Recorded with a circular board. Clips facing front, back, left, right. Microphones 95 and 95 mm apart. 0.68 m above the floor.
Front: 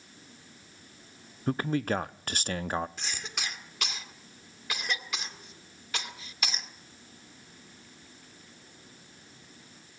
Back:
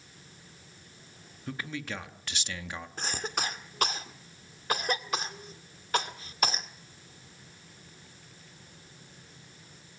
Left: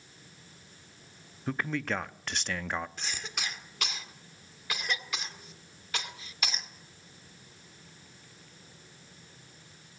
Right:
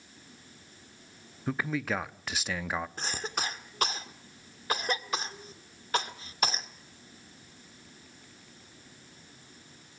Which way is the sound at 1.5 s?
5° right.